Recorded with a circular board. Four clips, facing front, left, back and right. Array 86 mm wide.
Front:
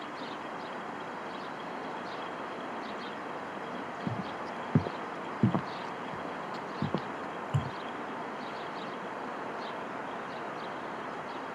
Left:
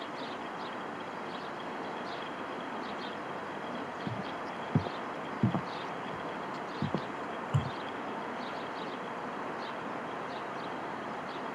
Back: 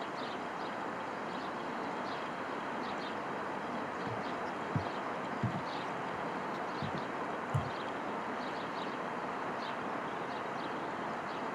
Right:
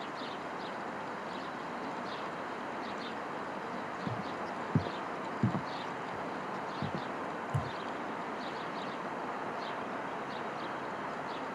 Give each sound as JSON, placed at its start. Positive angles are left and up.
{"t": 4.1, "sound": "footsteps", "azimuth_deg": 5}